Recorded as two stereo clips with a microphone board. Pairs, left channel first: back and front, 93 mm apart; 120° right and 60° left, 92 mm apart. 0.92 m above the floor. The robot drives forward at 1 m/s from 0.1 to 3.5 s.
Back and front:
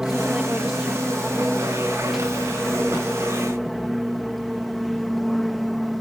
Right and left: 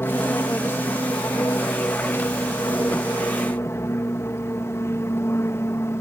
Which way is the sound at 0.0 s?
80° right.